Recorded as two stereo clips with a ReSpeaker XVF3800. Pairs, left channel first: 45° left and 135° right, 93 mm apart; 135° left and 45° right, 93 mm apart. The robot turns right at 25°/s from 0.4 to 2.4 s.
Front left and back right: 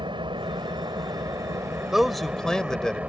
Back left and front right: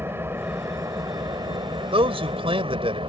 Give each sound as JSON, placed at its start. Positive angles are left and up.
{"t": 0.0, "sound": "an engine running", "azimuth_deg": -110}
{"t": 1.9, "sound": "a man speaking", "azimuth_deg": -50}